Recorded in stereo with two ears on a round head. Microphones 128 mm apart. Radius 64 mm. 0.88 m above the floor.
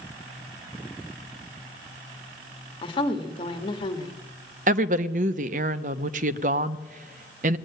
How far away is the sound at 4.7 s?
About 0.6 m.